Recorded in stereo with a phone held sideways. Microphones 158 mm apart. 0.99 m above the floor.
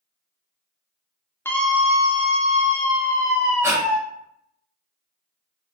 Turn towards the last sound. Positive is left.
turn(degrees=-15)  # may be behind; listen again after turning